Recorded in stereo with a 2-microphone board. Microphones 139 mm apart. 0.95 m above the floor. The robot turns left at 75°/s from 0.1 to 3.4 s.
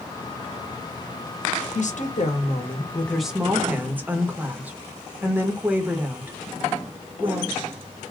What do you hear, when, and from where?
1.8 s a woman speaking: 110° left, 1.1 m; by 8.1 s 15° right, 1.1 m